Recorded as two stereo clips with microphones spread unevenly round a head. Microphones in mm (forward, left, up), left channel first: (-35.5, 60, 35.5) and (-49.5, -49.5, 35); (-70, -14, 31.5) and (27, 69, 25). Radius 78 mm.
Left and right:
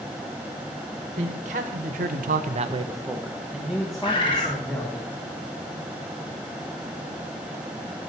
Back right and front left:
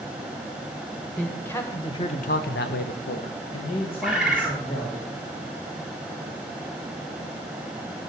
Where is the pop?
No pop in this recording.